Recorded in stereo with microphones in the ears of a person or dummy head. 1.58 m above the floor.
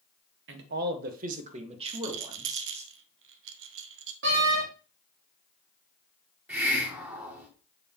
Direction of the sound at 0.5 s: 70° right (ahead or behind).